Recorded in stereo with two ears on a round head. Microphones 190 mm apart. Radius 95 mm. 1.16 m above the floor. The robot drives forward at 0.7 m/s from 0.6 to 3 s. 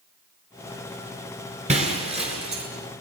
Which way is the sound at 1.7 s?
30° right (ahead or behind).